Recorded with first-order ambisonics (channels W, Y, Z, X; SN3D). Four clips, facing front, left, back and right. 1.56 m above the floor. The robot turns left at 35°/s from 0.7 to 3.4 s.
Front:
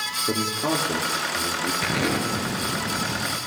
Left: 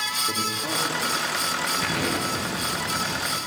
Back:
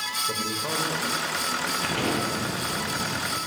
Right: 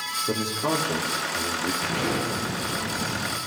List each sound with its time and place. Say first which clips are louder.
0.3 s a man speaking: right 1 dB, front 4 dB; 20° right, 4 m; by 1.7 s 55° right, 4 m
1.8 s an explosion: left 1 dB, front 2 dB; 20° left, 6.5 m; by 3.4 s 35° right, 6.5 m